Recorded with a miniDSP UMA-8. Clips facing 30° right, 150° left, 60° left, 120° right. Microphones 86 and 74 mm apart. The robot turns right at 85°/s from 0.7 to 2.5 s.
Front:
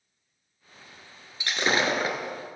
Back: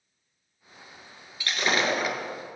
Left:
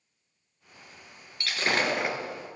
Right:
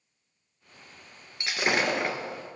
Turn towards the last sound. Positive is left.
turn(degrees=15)